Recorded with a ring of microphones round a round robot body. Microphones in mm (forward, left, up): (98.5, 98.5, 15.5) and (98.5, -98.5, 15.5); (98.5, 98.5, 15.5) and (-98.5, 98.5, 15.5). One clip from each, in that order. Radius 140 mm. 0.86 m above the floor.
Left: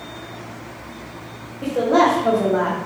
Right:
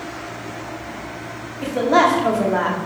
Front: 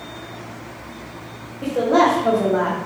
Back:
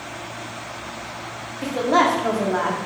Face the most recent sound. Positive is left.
turn(degrees=-125)